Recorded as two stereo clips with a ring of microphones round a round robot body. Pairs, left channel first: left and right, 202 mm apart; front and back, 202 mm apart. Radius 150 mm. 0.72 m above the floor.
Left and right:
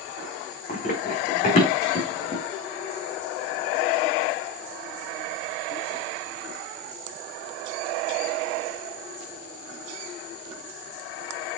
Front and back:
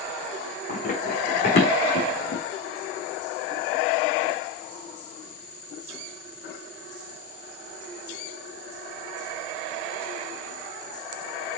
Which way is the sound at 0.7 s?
40° left.